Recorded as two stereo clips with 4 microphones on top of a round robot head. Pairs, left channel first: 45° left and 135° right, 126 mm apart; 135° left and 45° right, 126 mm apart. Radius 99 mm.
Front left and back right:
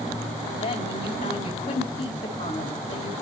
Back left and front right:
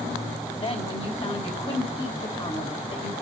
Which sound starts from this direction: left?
A woman speaking, at 0.6 s.